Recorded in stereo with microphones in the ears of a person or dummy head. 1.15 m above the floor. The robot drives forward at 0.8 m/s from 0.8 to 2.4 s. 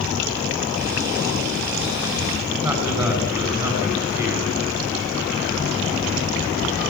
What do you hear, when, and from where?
2.6 s a man speaking: 15° right (ahead or behind), 9.5 m